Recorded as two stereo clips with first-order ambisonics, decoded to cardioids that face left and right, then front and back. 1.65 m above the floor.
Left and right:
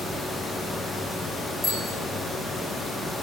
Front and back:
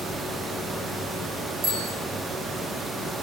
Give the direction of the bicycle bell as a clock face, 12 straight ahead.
6 o'clock.